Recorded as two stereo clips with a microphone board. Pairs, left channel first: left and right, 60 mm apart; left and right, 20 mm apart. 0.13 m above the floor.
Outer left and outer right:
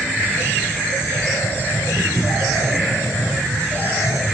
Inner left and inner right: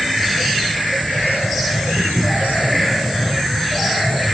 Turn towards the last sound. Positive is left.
turn(degrees=75)  # may be behind; listen again after turning